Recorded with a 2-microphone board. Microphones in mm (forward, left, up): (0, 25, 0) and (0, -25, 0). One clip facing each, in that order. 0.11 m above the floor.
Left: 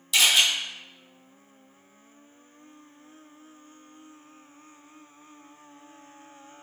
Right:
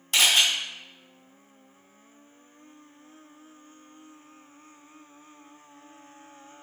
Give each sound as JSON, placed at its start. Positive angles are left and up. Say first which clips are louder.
{"t": 0.1, "sound": "a camera shutter", "louder": "even", "side_deg": -45, "distance_m": 1.3}